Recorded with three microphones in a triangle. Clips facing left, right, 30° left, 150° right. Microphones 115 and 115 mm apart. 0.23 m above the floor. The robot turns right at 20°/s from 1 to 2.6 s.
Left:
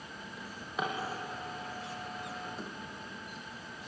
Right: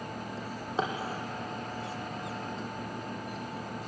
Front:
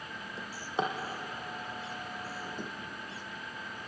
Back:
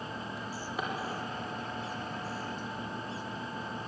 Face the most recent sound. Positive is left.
turn(degrees=0)